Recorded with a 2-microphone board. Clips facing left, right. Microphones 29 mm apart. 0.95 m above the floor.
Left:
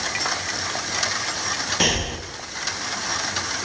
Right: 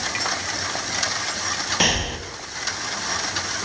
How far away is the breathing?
About 1.8 m.